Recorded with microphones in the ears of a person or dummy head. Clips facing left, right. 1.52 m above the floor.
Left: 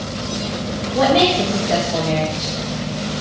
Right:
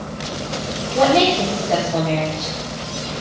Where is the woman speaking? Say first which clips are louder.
Even; 10° left (ahead or behind), 2.5 m.